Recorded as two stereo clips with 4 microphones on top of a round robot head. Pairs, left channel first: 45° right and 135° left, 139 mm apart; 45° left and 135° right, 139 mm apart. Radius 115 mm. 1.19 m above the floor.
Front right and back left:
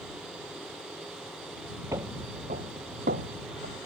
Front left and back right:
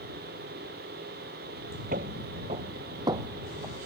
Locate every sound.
1.9 s footsteps: 155° right; by 3.8 s 150° left